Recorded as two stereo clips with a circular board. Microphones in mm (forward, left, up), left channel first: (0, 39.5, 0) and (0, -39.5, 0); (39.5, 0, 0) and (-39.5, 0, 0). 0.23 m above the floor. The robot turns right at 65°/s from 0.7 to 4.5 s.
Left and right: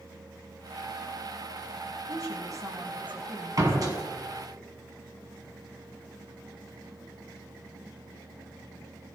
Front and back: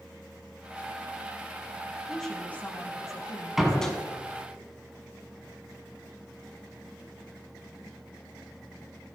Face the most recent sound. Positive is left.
turn(degrees=-35)